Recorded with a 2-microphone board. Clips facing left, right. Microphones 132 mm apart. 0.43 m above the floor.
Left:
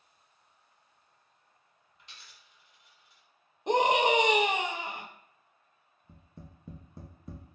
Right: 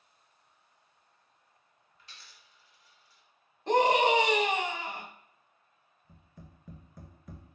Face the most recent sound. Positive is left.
turn(degrees=30)  # may be behind; listen again after turning